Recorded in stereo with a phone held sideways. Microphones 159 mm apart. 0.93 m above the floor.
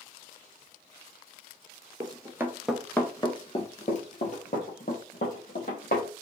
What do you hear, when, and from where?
2.0 s running footsteps: 25° right (ahead or behind), 1.3 m; by 6.1 s 65° left (ahead or behind), 3 m